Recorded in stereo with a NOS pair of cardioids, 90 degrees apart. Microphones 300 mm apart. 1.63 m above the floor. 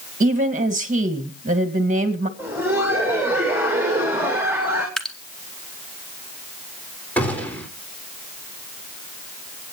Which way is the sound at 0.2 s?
25° right.